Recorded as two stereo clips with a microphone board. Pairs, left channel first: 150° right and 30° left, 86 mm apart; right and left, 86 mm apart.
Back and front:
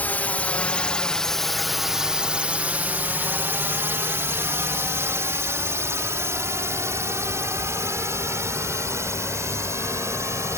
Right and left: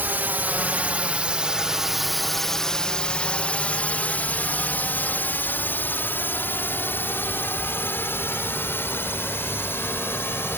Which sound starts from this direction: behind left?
A drone, at 0.0 s.